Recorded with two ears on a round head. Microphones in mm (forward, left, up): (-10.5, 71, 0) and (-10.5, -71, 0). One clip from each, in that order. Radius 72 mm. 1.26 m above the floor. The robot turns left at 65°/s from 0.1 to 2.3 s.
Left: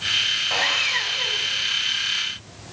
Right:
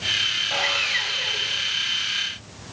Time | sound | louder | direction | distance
0.5 | sawing | left 1 dB | 65° left | 1.9 m